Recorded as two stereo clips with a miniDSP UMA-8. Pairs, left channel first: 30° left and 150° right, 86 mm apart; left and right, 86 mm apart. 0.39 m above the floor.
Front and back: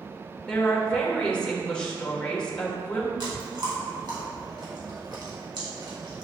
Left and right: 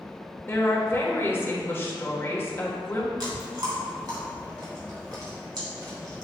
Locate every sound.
0.5 s a woman speaking: 90° left, 1.2 m
3.2 s chewing: 120° right, 2.5 m